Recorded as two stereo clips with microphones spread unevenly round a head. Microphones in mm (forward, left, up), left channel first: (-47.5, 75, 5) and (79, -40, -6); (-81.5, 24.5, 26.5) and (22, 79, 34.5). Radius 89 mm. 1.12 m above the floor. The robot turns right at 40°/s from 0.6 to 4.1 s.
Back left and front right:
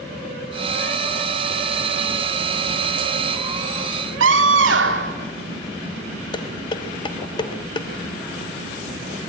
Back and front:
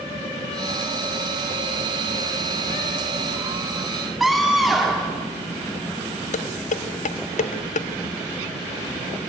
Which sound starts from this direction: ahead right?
A scream, at 4.2 s.